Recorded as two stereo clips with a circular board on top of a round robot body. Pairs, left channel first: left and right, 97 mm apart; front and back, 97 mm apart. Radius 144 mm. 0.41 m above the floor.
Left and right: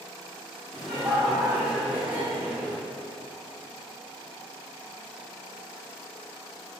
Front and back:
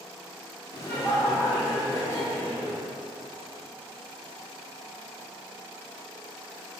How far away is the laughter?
About 1.7 m.